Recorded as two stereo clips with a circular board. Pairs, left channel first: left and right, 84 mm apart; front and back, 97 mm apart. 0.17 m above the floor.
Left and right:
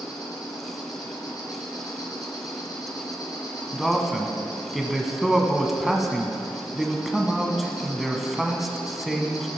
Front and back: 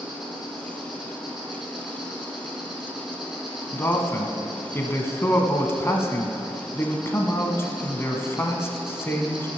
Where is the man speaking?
5° right, 1.1 m.